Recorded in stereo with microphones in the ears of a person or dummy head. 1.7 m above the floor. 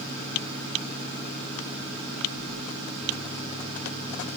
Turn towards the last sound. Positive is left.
No sound to turn to.